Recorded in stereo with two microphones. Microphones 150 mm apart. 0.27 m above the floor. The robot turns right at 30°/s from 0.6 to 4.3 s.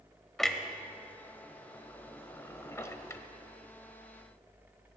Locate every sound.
0.4 s a clunk: 5° left (ahead or behind), 0.7 m; by 3.2 s 20° left (ahead or behind), 0.7 m